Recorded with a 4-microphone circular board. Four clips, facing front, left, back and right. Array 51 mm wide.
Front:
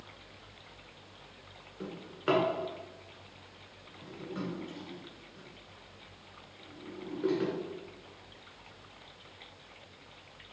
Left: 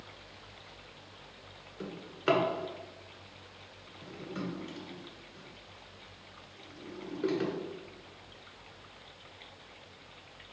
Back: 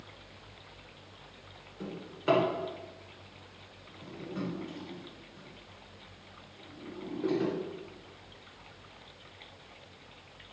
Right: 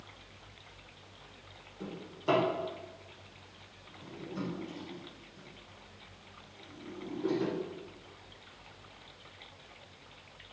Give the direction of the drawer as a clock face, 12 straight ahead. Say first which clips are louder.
Left 3 dB, even; 10 o'clock.